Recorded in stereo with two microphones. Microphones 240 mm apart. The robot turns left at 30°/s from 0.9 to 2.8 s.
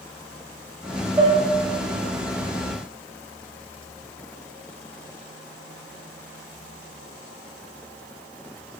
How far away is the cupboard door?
No cupboard door in this recording.